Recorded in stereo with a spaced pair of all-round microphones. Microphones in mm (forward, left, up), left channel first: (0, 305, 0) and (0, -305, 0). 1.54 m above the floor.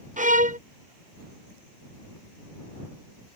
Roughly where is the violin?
Centre.